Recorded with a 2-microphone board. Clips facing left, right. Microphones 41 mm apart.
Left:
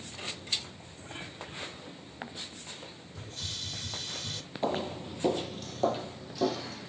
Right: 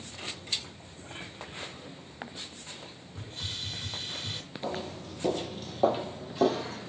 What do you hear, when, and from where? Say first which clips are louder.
3.1 s a hiss: right 2 dB; 25° right (ahead or behind), 0.6 m
4.6 s footsteps: left 5 dB; 50° left (ahead or behind), 0.7 m; by 6.9 s 45° right (ahead or behind), 1.2 m